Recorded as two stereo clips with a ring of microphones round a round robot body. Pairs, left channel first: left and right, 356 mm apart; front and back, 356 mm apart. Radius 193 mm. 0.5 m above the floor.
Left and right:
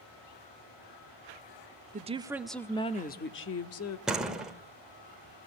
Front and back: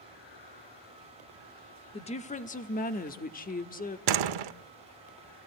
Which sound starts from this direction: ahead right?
A woman speaking, at 1.9 s.